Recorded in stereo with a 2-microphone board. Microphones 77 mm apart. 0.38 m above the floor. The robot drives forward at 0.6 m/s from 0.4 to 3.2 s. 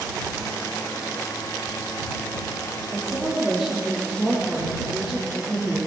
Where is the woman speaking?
20° right (ahead or behind), 8.5 m.